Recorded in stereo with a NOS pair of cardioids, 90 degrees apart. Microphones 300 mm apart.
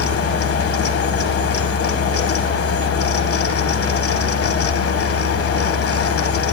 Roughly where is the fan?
Ahead left.